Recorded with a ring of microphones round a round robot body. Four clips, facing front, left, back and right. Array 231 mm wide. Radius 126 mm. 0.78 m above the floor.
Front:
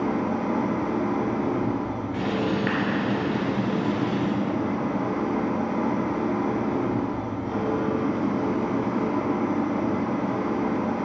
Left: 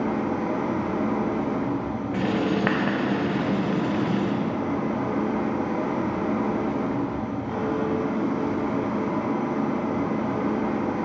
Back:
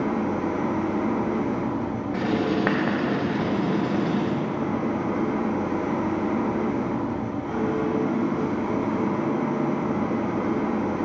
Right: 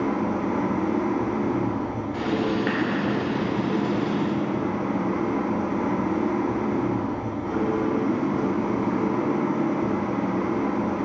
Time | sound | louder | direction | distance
0.0 | an engine running | right 1 dB, even | 95° right | 2 m
2.1 | writing | left 1 dB, back 2 dB | 140° left | 1.1 m